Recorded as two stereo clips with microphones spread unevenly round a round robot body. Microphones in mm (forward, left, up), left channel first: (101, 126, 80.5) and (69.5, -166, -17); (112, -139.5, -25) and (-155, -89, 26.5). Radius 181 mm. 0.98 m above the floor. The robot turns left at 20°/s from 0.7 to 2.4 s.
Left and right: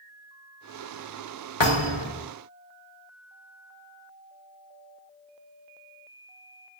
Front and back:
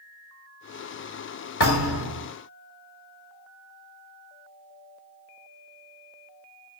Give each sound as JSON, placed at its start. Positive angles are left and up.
{"t": 1.6, "sound": "a thud", "azimuth_deg": 55, "distance_m": 1.8}